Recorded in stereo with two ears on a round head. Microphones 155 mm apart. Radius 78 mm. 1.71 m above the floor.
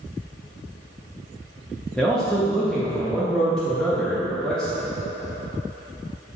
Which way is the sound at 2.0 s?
5° left (ahead or behind).